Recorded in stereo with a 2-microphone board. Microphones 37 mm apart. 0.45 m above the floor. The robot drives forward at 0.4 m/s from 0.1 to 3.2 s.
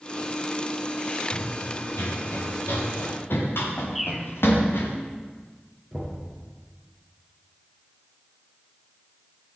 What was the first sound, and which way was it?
Running footsteps, 60° left (ahead or behind).